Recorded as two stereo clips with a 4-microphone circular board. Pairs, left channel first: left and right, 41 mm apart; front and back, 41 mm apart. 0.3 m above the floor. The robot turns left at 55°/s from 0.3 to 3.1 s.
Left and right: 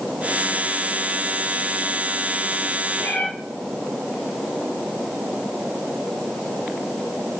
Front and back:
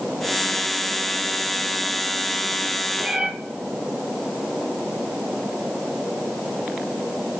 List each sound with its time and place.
3.0 s a cat meowing: 115° left, 2.0 m; by 3.3 s 110° left, 2.0 m